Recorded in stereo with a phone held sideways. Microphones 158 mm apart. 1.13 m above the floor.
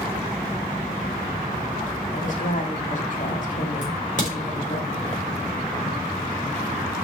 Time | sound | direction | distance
2.1 | a woman speaking | 55° left (ahead or behind) | 2 m
3.8 | a crack | 55° left (ahead or behind) | 4 m